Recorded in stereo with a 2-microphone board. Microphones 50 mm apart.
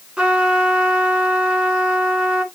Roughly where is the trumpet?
Right.